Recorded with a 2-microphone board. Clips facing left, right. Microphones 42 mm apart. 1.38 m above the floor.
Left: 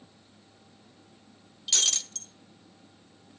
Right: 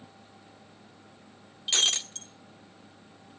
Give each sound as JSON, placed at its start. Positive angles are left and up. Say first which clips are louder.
{"t": 1.7, "sound": "breaking glass", "louder": "right 4 dB", "side_deg": -30, "distance_m": 1.0}